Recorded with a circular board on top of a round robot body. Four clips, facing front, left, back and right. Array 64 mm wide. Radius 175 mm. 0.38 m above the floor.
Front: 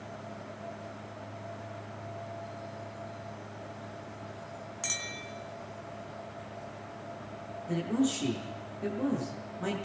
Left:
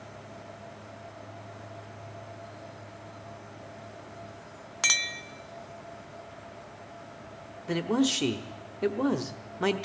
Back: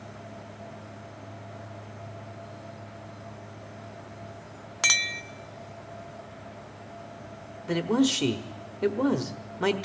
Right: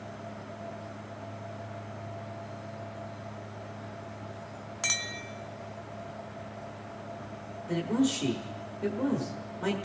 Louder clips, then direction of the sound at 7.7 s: Left 1 dB, back 5 dB; 140° left.